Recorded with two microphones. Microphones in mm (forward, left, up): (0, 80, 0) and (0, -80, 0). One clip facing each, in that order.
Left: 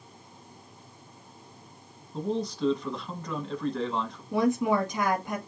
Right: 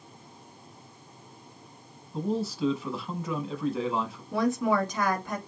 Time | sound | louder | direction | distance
2.1 | a man speaking | right 1 dB | 5° right (ahead or behind) | 1.1 m
4.3 | a woman speaking | left 1 dB | 20° left (ahead or behind) | 1.2 m